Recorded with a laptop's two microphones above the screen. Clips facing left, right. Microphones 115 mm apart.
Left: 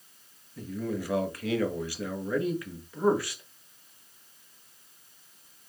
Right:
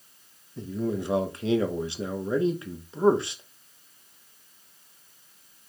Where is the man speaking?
25° right (ahead or behind), 0.5 m.